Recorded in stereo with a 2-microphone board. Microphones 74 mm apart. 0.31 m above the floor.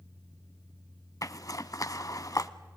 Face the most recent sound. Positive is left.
turn(degrees=50)  # may be behind; listen again after turning